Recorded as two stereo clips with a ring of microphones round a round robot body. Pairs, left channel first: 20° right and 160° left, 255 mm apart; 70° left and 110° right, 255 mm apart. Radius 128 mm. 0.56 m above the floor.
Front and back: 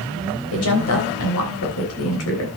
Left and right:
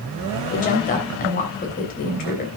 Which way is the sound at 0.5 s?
10° left.